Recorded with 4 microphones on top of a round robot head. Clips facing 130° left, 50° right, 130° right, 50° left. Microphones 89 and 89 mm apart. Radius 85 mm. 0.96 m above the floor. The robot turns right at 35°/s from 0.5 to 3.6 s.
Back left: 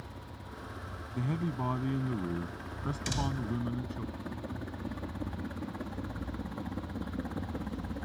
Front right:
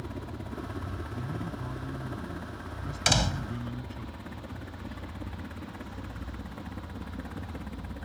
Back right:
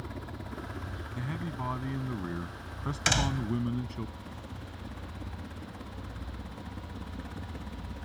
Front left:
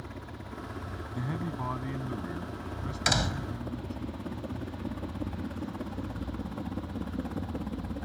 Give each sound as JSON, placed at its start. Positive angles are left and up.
{"t": 0.0, "sound": "a helicopter", "azimuth_deg": -50}
{"t": 1.1, "sound": "a man speaking", "azimuth_deg": 115}
{"t": 3.1, "sound": "a door slam", "azimuth_deg": -30}